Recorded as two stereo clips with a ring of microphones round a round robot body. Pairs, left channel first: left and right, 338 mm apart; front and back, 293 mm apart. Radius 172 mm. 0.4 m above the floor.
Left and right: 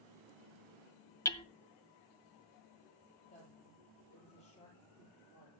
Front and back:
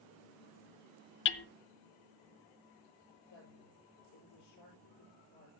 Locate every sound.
1.2 s hammering: 15° left, 0.7 m
3.3 s a woman speaking: 20° left, 8 m